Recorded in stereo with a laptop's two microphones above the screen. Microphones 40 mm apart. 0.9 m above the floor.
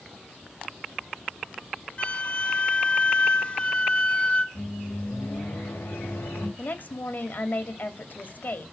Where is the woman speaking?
50° left (ahead or behind), 2 m.